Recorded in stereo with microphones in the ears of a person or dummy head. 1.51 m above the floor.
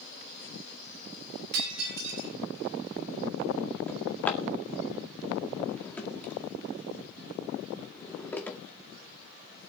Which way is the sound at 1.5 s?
80° right.